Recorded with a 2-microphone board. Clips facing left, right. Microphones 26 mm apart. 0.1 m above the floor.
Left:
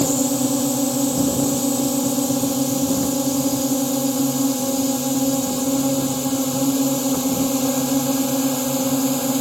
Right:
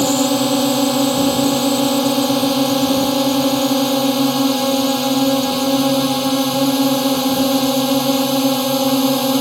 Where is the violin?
No violin in this recording.